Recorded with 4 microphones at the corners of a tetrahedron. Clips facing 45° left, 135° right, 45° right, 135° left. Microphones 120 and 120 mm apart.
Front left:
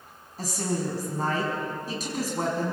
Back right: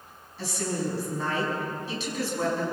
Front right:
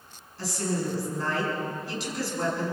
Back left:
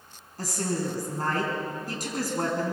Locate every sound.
0.4 s a woman speaking: 90° left, 5 m